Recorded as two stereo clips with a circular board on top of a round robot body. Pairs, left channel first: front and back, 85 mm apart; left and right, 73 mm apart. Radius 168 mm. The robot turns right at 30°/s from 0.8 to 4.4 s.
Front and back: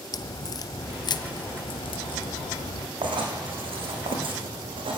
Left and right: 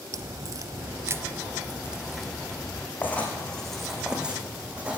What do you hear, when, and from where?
0.1 s a crack: 45° right, 0.6 m; by 2.9 s 20° left, 0.6 m
3.0 s writing: 155° left, 5 m; by 5.0 s 165° right, 5 m